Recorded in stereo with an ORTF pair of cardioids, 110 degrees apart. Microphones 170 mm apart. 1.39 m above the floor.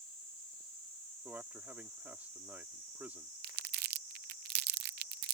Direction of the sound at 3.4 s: 65° right.